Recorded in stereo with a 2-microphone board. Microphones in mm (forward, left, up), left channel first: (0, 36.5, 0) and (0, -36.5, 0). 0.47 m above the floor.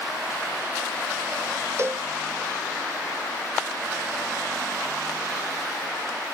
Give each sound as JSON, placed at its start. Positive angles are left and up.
{"t": 1.8, "sound": "a cowbell", "side_deg": -40, "distance_m": 0.5}